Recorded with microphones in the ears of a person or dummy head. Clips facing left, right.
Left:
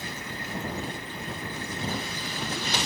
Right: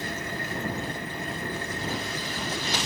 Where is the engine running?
45° right (ahead or behind).